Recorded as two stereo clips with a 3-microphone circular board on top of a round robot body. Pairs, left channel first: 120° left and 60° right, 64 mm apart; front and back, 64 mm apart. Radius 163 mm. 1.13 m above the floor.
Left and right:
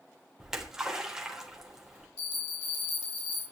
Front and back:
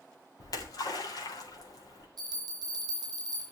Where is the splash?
20° left, 3.5 m.